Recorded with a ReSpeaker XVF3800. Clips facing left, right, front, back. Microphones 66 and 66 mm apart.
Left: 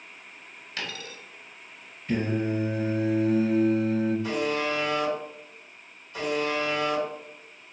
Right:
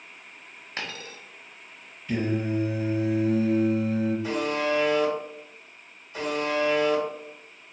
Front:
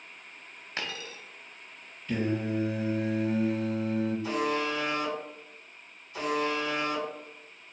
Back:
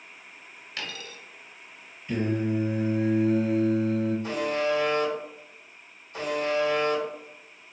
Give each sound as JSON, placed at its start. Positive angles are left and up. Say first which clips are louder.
{"t": 0.8, "sound": "a dropped coin", "louder": "even, front 1 dB", "azimuth_deg": -50, "distance_m": 0.6}
{"t": 2.1, "sound": "singing", "louder": "even, back 3 dB", "azimuth_deg": 115, "distance_m": 1.8}
{"t": 4.2, "sound": "a buzzer", "louder": "right 1 dB, back 2 dB", "azimuth_deg": -155, "distance_m": 1.8}